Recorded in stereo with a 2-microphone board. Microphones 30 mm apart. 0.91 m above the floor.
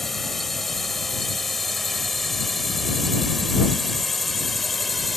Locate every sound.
0.0 s a drone: 5° left (ahead or behind); by 5.2 s centre (ahead or behind)